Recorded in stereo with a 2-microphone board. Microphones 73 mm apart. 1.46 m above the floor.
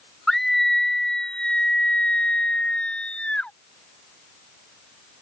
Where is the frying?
I don't hear frying.